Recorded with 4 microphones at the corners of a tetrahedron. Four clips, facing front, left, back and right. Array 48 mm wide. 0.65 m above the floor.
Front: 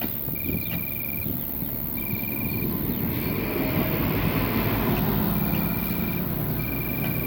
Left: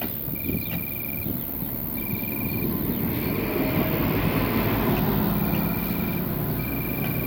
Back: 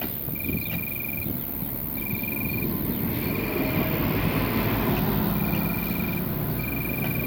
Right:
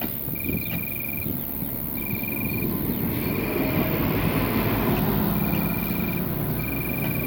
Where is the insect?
125° right.